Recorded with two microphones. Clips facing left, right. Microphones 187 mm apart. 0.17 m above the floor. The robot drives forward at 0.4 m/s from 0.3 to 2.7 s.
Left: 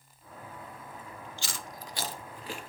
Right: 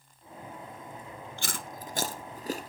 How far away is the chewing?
About 1.0 m.